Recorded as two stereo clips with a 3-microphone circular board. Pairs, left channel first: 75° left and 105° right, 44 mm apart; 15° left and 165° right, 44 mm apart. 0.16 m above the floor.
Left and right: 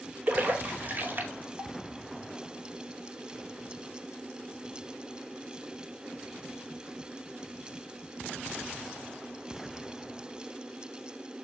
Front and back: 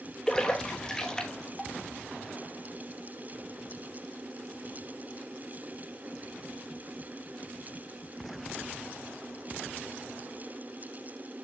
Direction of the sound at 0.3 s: 60° right.